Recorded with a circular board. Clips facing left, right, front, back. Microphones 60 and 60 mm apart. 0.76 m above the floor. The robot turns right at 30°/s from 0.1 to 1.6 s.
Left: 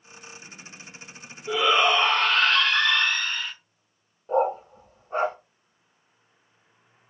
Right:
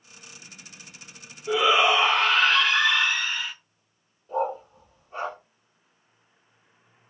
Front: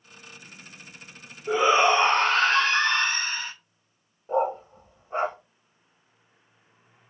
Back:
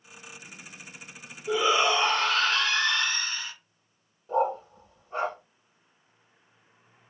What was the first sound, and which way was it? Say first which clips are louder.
A shout: right 1 dB, front 4 dB; 10° right.